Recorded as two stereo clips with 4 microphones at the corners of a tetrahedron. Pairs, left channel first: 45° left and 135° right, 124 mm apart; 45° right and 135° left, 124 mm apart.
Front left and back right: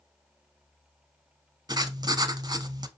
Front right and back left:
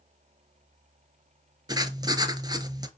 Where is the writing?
Straight behind, 0.9 m.